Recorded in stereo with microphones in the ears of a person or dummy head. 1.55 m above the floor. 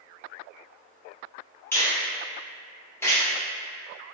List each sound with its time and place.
1.7 s a finger snap: 10° left (ahead or behind), 1.0 m